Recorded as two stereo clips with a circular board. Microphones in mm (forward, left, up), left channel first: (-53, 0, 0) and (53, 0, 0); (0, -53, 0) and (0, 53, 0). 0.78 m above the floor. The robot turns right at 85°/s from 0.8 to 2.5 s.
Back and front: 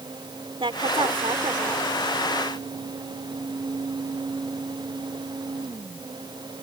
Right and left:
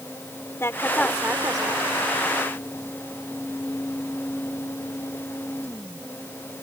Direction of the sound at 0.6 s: 25° right.